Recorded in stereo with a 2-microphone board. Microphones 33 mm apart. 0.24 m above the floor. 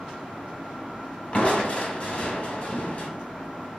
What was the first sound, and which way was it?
Crushing, 45° left (ahead or behind).